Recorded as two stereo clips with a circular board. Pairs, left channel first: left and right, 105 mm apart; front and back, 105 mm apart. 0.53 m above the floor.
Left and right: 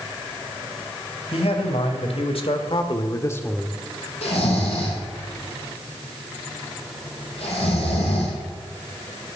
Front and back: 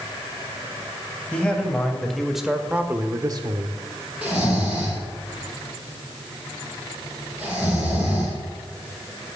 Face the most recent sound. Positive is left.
turn(degrees=100)